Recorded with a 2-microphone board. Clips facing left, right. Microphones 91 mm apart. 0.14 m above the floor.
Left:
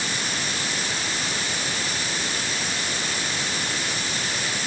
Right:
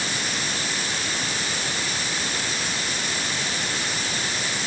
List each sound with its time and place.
Only background noise.